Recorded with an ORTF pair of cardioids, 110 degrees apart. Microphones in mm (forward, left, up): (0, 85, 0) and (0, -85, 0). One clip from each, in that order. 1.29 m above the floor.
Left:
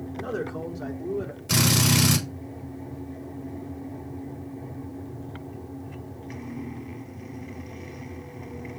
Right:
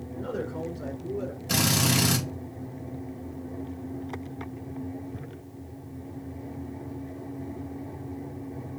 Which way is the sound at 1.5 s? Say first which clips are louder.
Left 2 dB; 30° left.